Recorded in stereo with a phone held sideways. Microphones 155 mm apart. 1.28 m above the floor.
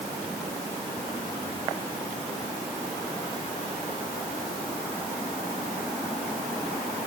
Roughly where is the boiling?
I don't hear boiling.